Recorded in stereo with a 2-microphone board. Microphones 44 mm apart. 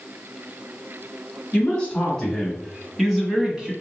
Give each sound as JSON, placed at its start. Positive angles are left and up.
{"t": 1.5, "sound": "a man speaking", "side_deg": 25, "distance_m": 1.2}